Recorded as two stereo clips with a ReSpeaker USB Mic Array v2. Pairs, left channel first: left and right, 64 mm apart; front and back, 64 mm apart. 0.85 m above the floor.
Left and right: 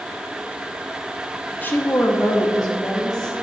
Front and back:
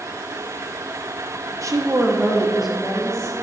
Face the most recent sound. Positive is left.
turn(degrees=75)